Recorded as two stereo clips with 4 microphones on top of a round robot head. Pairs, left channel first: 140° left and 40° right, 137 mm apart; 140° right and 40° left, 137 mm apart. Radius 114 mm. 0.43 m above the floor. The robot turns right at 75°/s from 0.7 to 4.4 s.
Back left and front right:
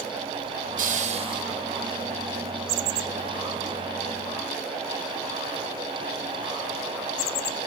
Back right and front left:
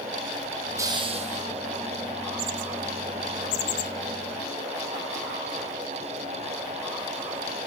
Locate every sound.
0.8 s a hiss: 30° right, 1.4 m; by 1.4 s 20° left, 1.4 m